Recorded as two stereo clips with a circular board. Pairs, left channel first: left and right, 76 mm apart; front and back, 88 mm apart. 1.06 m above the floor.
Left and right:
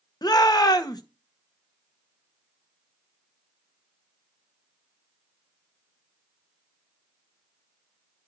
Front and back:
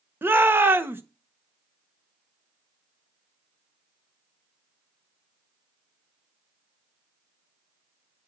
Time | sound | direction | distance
0.2 | a shout | 115° left | 1.3 m